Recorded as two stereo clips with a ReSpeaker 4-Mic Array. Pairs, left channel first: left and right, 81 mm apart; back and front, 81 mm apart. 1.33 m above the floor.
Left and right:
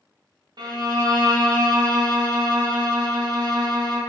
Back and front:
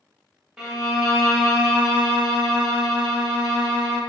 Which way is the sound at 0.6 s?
80° right.